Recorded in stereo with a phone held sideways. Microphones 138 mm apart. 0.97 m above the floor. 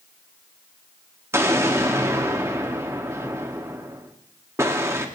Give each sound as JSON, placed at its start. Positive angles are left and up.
{"t": 1.3, "sound": "an explosion", "side_deg": -20, "distance_m": 2.0}